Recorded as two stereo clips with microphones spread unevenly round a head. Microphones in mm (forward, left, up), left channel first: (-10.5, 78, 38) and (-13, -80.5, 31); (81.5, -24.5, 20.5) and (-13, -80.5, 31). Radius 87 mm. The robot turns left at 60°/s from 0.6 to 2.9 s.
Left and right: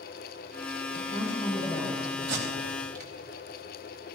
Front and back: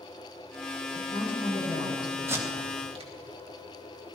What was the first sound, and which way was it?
A woman speaking, 55° left.